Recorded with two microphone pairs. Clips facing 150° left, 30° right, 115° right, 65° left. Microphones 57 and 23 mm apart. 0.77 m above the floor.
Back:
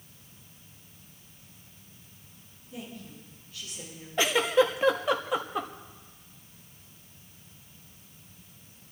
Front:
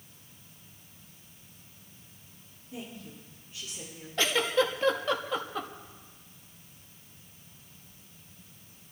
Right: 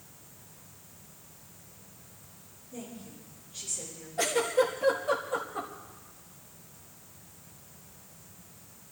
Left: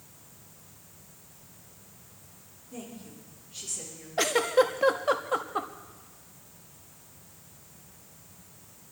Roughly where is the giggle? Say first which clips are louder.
Back 3 dB, left 3 dB; left.